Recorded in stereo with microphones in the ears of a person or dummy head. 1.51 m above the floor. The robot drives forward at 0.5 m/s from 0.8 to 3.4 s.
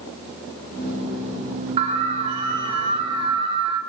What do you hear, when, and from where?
1.8 s an alarm: 30° right (ahead or behind), 4.5 m; by 3.8 s 25° right (ahead or behind), 5 m